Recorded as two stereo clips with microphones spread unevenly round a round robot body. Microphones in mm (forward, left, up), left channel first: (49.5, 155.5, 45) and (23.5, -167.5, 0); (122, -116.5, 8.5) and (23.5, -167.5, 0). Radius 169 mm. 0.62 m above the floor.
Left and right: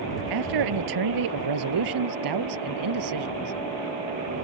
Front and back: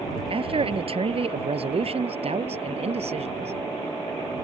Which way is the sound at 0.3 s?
120° right.